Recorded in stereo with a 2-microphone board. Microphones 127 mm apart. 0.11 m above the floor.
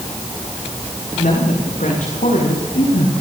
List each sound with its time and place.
1.1 s a woman speaking: 80° left, 9 m; by 3.1 s 70° left (ahead or behind), 10 m